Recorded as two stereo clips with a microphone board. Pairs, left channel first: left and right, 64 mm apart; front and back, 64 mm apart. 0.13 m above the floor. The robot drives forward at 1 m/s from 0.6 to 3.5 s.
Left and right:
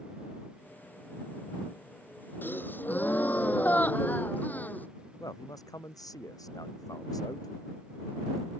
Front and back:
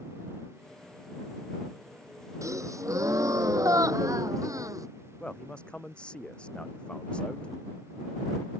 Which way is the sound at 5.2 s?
75° left.